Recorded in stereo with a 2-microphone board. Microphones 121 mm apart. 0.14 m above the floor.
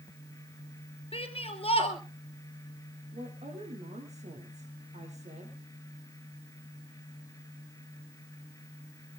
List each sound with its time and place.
1.1 s a shout: 50° left (ahead or behind), 3 m
3.1 s a woman speaking: 70° right (ahead or behind), 4.5 m